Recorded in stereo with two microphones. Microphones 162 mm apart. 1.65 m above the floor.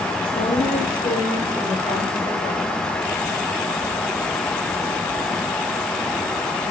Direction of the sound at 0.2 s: 60° left (ahead or behind).